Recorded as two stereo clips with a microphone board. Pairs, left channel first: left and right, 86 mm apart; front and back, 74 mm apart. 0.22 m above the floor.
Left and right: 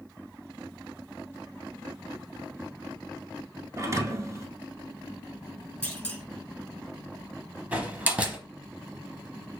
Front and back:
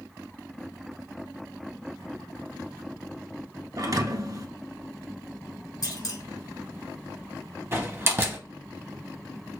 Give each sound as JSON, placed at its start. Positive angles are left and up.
{"t": 3.8, "sound": "a thud", "azimuth_deg": -145, "distance_m": 0.7}
{"t": 5.8, "sound": "a clunk", "azimuth_deg": 20, "distance_m": 1.1}
{"t": 7.7, "sound": "a door slam", "azimuth_deg": -150, "distance_m": 0.8}